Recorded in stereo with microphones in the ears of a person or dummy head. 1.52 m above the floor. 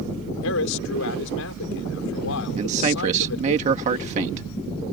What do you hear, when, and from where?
0.4 s a man speaking: 70° left (ahead or behind)
2.6 s a man speaking: 40° right (ahead or behind)